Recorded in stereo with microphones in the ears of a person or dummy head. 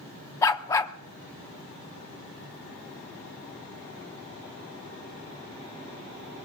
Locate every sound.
0.4 s a dog barking: 15° left (ahead or behind), 0.9 m